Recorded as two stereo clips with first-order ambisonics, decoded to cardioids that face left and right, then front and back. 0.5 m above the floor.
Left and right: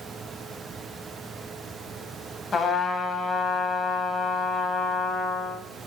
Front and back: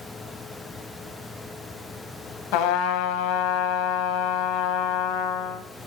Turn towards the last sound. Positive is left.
turn(degrees=20)